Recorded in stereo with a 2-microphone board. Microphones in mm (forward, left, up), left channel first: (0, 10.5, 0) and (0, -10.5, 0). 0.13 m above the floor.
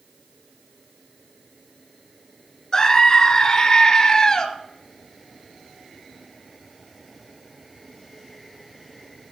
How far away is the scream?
About 1.6 m.